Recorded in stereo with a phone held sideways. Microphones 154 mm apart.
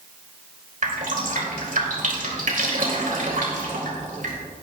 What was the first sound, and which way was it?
Dripping, 60° right (ahead or behind).